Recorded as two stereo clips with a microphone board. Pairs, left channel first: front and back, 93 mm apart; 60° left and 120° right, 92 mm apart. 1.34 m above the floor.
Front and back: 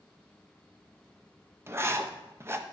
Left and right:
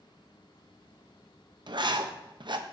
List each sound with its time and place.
1.7 s writing: 125° right, 0.7 m